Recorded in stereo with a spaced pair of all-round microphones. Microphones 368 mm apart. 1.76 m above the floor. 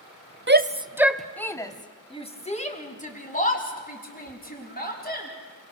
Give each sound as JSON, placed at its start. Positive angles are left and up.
{"t": 0.5, "sound": "a shout", "side_deg": -30, "distance_m": 0.7}